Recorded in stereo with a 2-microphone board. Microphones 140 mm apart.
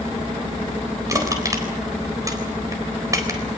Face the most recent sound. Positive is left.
turn(degrees=-25)  # may be behind; listen again after turning